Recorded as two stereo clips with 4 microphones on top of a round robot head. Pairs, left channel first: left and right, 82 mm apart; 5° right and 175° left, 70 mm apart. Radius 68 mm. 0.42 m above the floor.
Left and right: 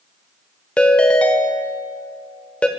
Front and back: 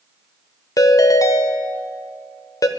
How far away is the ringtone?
About 1.2 m.